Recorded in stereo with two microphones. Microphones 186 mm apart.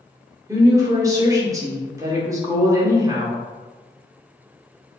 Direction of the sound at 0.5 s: 20° right (ahead or behind).